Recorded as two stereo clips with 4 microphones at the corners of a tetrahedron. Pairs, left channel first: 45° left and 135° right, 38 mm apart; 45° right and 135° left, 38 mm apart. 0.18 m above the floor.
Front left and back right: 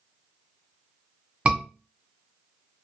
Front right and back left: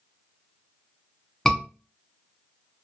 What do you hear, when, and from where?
1.4 s a scream: 110° right, 1.2 m